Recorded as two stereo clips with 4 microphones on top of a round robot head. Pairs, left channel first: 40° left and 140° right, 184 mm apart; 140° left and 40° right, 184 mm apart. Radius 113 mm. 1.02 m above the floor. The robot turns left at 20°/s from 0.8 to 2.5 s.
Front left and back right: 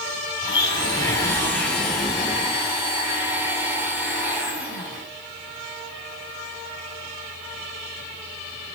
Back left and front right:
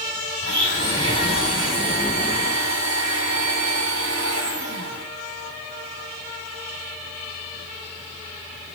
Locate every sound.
0.4 s a blender: 25° right, 1.5 m; by 5.0 s 60° right, 1.5 m